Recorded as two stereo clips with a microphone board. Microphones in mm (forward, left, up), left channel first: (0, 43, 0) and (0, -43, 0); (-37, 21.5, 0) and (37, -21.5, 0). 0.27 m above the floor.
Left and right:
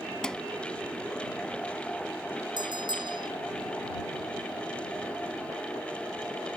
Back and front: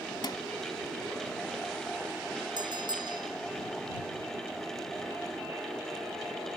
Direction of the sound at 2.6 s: 60° right.